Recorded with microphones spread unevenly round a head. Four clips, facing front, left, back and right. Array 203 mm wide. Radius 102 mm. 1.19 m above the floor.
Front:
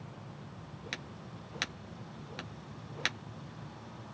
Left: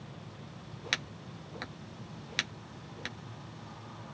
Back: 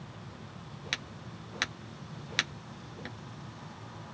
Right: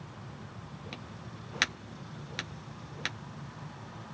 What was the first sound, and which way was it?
Only background noise.